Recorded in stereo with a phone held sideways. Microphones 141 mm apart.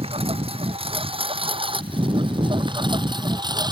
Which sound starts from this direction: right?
A lawn mower, at 0.0 s.